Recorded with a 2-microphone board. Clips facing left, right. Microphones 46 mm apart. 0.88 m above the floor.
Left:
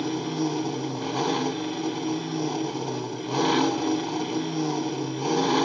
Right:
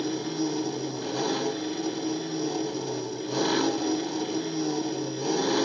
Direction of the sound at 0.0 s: 35° left (ahead or behind).